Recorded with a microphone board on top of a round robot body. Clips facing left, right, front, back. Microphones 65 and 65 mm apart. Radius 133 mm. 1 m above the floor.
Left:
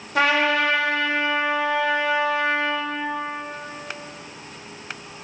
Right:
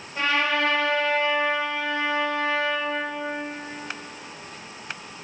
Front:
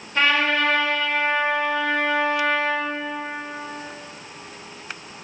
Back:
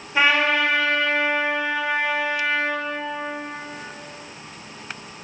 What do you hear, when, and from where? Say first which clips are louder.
0.1 s a trumpet: left 4 dB, back 1 dB; 100° left, 5.5 m